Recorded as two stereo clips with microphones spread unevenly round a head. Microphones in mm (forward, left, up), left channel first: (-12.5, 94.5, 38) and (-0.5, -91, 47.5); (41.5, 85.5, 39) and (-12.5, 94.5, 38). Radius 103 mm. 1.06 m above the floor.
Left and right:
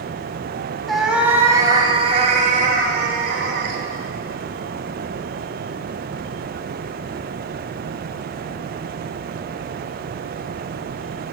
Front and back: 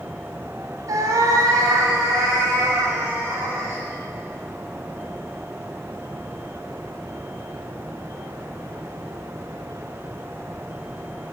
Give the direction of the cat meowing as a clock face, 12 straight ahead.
6 o'clock.